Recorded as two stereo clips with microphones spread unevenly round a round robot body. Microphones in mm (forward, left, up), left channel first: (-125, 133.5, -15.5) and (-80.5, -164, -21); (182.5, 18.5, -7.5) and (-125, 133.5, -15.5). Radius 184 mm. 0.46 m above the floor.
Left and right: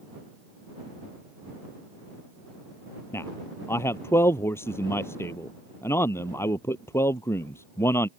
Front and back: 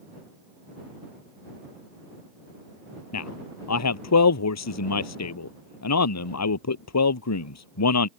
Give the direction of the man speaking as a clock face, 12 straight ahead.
11 o'clock.